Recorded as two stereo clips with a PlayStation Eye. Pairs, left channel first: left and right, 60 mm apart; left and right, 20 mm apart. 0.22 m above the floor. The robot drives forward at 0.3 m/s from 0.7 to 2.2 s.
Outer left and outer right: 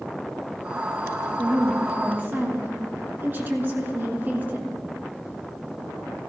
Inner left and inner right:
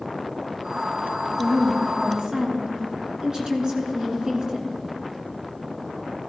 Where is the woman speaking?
40° right (ahead or behind), 2.5 m; by 4.8 s 35° right (ahead or behind), 2.5 m.